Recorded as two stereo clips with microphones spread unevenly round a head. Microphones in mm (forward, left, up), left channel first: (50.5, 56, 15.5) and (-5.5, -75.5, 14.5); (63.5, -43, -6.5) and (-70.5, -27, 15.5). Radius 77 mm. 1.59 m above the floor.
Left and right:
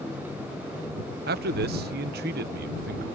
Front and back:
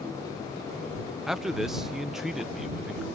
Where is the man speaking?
100° right.